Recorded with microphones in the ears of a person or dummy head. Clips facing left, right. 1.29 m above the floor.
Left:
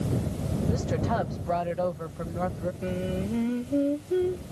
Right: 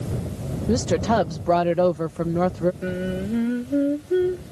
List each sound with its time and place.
0.7 s a woman speaking: 65° right (ahead or behind)
2.8 s singing: 20° right (ahead or behind)